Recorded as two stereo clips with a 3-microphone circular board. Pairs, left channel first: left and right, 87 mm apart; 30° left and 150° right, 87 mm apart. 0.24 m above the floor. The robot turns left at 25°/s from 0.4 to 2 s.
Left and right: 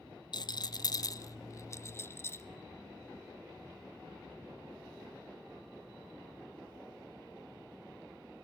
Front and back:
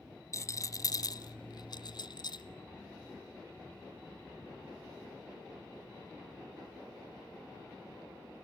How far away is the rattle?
About 0.9 m.